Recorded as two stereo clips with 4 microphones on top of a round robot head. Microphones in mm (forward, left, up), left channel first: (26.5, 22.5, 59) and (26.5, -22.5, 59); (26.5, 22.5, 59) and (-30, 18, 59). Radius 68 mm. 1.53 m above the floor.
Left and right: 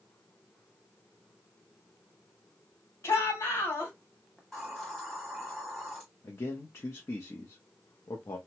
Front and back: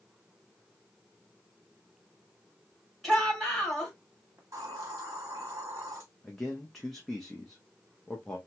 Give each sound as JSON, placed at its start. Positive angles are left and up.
{"t": 3.0, "sound": "a shout", "azimuth_deg": 95, "distance_m": 2.5}
{"t": 4.4, "sound": "a hiss", "azimuth_deg": 175, "distance_m": 1.0}
{"t": 6.2, "sound": "a man speaking", "azimuth_deg": 90, "distance_m": 0.6}